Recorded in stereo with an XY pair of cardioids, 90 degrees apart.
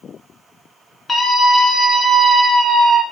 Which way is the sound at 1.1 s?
25° left.